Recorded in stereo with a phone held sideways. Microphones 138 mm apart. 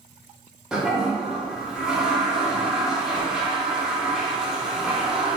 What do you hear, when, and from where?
0.7 s a toilet flushing: 5° right (ahead or behind), 0.7 m